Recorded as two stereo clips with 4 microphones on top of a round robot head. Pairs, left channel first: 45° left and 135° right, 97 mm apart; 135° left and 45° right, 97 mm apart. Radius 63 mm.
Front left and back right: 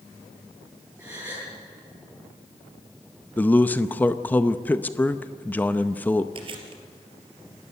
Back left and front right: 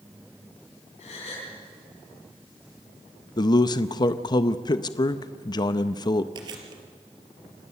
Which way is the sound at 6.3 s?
95° right.